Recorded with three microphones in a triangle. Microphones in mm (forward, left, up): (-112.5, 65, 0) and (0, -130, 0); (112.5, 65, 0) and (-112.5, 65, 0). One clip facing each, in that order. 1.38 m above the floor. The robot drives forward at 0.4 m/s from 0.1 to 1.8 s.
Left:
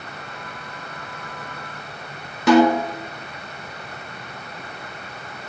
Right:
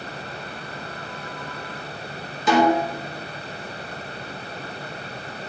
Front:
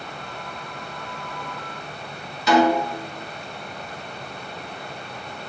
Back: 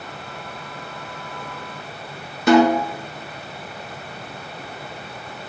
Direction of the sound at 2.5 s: 145° left.